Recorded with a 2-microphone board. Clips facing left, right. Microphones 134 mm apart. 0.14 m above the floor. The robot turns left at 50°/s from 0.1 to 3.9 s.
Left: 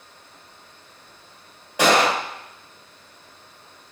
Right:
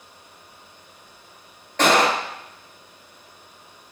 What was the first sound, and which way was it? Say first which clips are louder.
A gunshot: even; 10° left (ahead or behind).